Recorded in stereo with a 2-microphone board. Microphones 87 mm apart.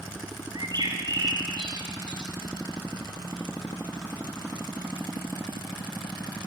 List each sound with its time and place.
0.6 s a bird: 55° right (ahead or behind), 4 m